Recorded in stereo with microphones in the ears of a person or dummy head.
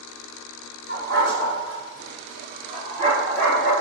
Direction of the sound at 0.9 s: 55° right (ahead or behind).